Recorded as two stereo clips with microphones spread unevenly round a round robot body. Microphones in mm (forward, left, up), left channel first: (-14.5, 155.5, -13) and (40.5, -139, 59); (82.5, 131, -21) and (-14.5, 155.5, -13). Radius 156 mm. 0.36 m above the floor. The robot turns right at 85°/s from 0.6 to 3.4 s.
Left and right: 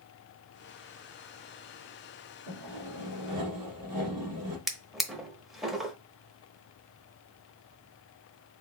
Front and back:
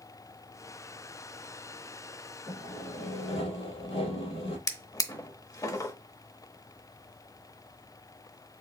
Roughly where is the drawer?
Ahead.